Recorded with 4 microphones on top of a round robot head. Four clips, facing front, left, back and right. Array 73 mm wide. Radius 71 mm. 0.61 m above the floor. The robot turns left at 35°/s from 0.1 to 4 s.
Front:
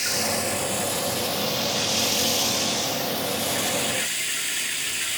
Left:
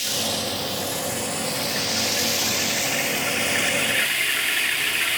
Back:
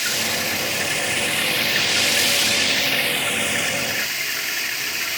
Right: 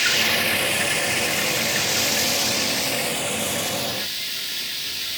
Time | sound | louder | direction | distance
0.0 | running water | right 6 dB, back 2 dB | 105° right | 0.8 m